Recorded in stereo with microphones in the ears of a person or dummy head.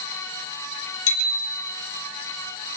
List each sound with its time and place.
1.1 s a bicycle bell: 80° left, 4.5 m